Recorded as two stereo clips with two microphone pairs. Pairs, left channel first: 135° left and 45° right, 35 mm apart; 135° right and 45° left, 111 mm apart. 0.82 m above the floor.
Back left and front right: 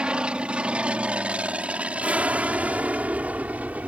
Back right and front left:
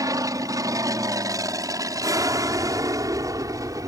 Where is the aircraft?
Straight ahead; by 3.9 s 10° right.